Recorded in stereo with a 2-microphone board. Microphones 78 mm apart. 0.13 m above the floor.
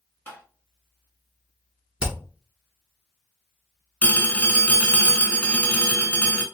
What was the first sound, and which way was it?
Tapping, 20° left (ahead or behind).